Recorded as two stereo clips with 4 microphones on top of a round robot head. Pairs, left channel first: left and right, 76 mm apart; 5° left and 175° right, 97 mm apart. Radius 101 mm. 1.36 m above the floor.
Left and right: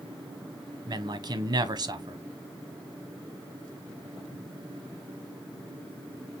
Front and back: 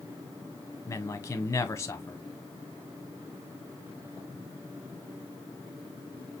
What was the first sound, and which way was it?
A man speaking, 60° right.